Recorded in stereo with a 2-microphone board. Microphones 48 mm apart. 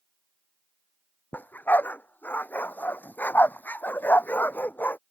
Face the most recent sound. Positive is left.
turn(degrees=40)  # may be behind; listen again after turning